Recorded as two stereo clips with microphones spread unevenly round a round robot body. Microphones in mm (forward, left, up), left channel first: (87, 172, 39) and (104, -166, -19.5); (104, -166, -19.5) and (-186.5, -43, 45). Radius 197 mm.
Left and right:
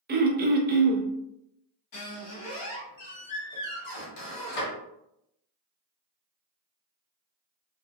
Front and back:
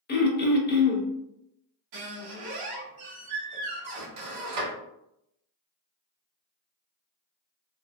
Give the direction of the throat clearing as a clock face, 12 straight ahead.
2 o'clock.